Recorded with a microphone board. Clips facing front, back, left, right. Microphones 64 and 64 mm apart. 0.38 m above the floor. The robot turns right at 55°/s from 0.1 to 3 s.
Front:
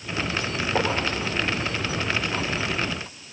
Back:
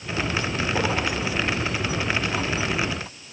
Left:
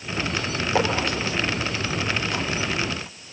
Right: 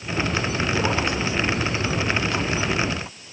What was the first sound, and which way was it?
Writing, 65° left.